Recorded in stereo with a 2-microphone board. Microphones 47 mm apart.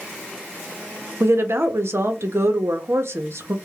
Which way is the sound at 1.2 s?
65° right (ahead or behind).